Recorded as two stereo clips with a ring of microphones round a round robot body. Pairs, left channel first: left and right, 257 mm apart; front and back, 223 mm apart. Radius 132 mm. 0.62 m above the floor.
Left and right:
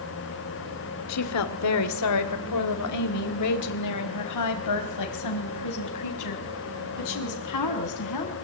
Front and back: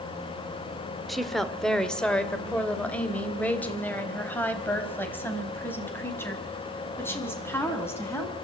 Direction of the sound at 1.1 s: 90° left.